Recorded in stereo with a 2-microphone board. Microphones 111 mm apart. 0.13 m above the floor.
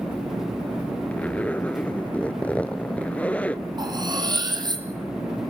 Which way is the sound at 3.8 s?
40° right (ahead or behind).